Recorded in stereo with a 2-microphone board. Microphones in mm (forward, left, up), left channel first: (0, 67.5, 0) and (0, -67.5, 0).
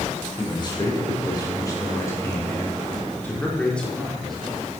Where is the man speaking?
35° left (ahead or behind), 3.5 m; by 4.8 s 5° right (ahead or behind), 3 m.